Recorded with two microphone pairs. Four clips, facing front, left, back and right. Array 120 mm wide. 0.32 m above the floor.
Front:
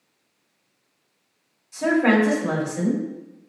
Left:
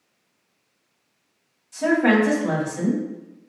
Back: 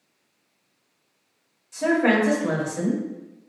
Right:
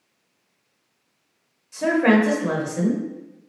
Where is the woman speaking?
100° right, 1.3 m.